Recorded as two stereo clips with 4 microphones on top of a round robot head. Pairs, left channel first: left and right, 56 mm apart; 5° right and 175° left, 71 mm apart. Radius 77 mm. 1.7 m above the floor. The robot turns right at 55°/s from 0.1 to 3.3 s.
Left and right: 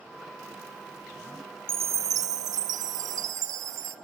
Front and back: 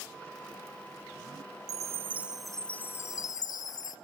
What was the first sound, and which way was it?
A chime, 135° right.